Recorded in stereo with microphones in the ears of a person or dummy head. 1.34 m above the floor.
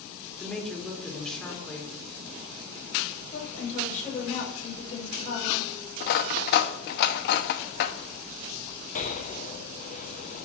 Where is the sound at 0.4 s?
Centre (ahead or behind), 3.5 m.